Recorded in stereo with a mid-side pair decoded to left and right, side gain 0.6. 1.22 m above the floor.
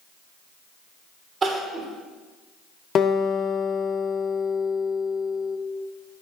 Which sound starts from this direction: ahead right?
Crying, at 1.4 s.